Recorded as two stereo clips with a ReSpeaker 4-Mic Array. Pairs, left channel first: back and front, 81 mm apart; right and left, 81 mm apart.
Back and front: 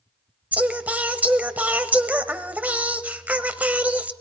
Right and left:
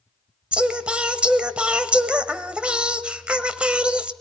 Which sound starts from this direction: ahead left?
Singing, at 0.5 s.